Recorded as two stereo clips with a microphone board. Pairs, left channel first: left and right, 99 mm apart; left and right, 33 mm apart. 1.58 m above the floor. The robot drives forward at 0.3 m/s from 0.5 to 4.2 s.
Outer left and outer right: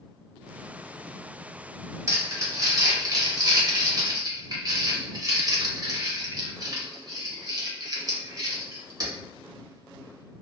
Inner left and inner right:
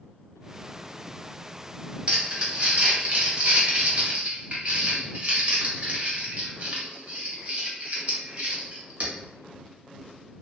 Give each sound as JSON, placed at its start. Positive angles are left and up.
{"t": 2.1, "sound": "crumpling", "side_deg": -30, "distance_m": 0.9}